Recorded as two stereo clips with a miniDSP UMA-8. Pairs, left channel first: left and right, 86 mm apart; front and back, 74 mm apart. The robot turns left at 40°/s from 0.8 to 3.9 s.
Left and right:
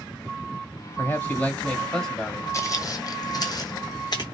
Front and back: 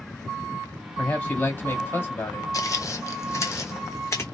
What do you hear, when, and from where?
1.0 s a man speaking: 55° left, 1.3 m; by 2.4 s straight ahead, 1.3 m
2.5 s footsteps: 40° left, 0.6 m; by 4.2 s 55° left, 1.1 m